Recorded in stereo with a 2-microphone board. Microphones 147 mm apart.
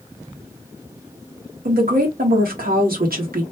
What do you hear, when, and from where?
1.6 s a woman speaking: 80° right, 1.4 m